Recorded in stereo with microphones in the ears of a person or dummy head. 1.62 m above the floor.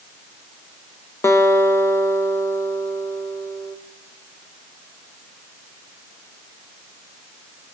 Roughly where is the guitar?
Centre.